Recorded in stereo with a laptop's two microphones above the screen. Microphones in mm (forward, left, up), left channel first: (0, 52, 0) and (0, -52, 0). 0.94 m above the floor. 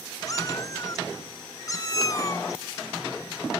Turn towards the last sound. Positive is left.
turn(degrees=35)  # may be behind; listen again after turning